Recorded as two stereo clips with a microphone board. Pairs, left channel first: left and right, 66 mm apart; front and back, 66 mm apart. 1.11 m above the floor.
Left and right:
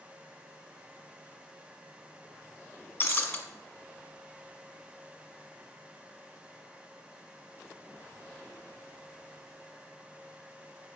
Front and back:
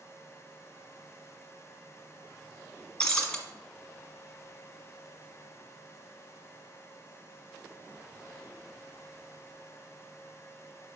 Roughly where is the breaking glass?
Left.